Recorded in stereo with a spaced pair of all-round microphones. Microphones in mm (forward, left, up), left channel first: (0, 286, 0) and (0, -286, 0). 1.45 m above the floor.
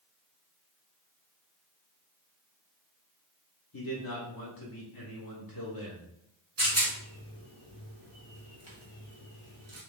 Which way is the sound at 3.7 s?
40° left (ahead or behind).